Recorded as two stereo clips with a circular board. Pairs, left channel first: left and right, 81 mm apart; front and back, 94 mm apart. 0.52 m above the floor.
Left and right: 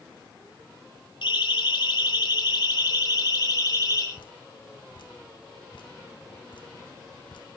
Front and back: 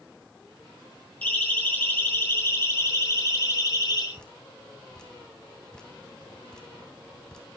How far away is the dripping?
About 3 m.